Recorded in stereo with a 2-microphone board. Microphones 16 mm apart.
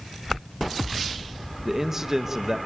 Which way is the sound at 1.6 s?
20° right (ahead or behind).